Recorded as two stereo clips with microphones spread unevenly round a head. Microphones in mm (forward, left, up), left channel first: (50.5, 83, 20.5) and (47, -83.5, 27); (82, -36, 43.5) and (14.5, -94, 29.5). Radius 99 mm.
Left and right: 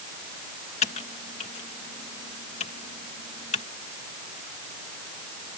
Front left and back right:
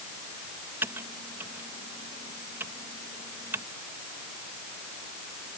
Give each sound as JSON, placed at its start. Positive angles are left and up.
{"t": 0.8, "sound": "typing on a keyboard", "azimuth_deg": 145}